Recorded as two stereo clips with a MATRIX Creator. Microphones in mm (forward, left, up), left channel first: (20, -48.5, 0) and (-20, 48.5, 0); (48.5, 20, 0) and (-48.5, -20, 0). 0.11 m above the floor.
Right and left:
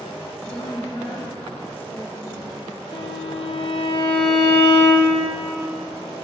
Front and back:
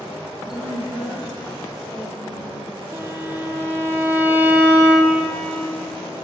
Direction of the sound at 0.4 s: 70° right.